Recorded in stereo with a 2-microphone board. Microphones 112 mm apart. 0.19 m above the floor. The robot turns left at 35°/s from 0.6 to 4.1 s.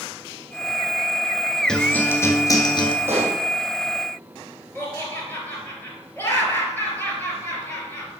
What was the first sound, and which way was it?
A guitar, 170° left.